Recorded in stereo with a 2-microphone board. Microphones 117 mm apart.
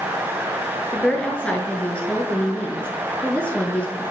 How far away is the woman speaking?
About 1.2 m.